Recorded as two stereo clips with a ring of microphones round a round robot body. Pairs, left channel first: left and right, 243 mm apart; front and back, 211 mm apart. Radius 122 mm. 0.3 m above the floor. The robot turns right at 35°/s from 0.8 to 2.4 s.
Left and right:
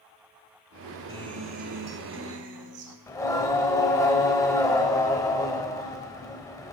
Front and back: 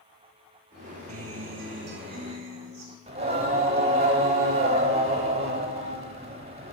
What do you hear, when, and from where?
1.1 s a guitar: 165° right, 1.1 m; by 3.0 s 115° right, 1.1 m
3.1 s singing: 155° left, 1.1 m